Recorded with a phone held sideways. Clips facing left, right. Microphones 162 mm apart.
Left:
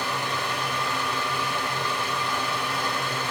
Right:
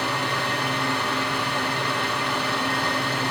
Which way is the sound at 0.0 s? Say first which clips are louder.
Right 3 dB; 65° right (ahead or behind).